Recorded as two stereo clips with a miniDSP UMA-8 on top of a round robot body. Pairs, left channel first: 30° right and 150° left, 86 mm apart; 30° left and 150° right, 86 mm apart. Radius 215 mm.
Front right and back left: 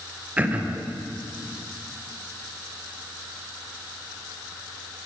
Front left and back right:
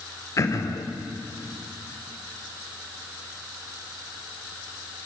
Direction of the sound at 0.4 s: 80° left.